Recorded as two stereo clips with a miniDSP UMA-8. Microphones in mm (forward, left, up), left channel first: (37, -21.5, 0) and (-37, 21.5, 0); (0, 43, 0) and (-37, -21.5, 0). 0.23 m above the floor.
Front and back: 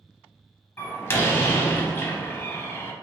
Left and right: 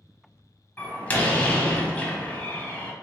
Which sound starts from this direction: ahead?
A door slam, at 0.8 s.